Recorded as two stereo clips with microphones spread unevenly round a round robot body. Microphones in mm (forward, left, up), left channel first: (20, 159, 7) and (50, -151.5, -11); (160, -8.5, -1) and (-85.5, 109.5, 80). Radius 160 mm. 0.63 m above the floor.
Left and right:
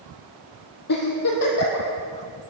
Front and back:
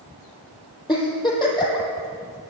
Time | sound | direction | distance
0.9 | a giggle | 50° left | 4 m